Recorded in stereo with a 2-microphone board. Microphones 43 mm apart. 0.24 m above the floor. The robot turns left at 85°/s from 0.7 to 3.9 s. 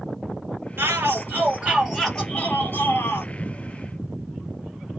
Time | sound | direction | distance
0.8 | a shout | 80° right | 4.5 m